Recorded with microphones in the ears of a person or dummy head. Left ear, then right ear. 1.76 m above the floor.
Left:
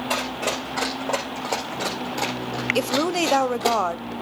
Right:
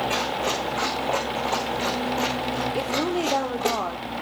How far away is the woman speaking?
About 1.1 m.